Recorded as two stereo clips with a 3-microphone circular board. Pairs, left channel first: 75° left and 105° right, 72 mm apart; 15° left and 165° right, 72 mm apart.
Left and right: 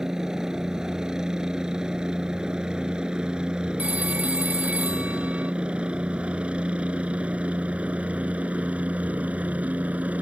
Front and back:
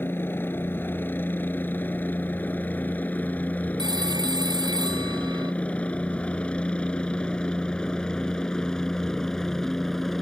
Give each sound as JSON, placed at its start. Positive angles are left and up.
{"t": 0.0, "sound": "a helicopter", "azimuth_deg": -25}
{"t": 3.8, "sound": "a phone ringing", "azimuth_deg": -175}